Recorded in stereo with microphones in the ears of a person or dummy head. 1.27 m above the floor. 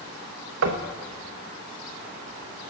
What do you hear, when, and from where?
0.6 s knocking: 70° right (ahead or behind), 1.1 m